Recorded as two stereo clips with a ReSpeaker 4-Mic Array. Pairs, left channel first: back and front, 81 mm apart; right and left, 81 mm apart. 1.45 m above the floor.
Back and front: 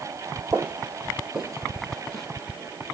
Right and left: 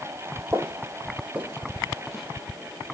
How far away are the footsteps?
About 1.8 m.